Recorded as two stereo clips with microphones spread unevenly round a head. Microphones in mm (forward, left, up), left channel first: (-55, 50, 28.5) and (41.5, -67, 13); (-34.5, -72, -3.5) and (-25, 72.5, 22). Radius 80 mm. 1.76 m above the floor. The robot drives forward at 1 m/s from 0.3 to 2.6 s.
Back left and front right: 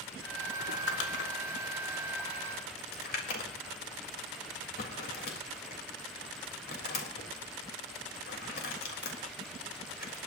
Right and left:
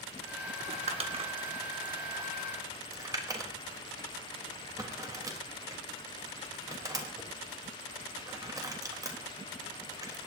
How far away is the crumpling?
About 1.8 m.